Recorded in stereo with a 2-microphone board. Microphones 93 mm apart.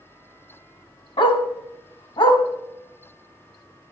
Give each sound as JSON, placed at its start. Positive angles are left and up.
{"t": 1.2, "sound": "a dog barking", "side_deg": 70, "distance_m": 1.6}